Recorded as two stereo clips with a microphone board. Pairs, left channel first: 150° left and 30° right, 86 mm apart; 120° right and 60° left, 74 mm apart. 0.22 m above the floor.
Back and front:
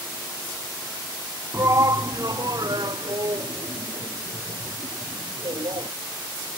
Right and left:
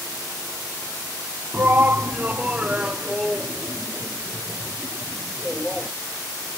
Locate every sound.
1.5 s a shout: 10° left; by 5.9 s 35° right